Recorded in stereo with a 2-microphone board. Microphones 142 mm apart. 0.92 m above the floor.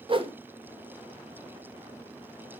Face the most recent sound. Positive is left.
turn(degrees=-40)  # may be behind; listen again after turning